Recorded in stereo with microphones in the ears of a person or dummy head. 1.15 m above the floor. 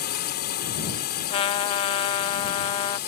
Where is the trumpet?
30° left (ahead or behind).